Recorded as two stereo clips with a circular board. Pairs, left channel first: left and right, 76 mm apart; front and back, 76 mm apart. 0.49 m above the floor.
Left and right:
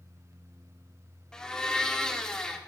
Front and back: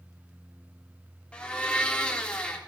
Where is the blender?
35° left, 1.3 m.